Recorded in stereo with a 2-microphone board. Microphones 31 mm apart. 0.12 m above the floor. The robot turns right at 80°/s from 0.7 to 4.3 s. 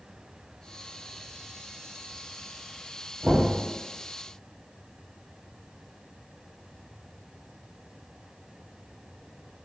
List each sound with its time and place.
3.2 s knocking: 50° right (ahead or behind), 1.9 m